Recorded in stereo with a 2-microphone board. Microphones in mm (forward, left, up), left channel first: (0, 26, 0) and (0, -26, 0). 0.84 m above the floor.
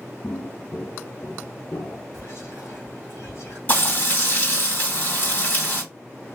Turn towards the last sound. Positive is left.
turn(degrees=40)  # may be behind; listen again after turning